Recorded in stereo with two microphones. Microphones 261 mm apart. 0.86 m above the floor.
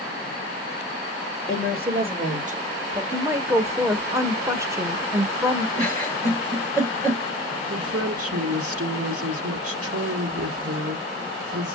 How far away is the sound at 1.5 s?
About 3 m.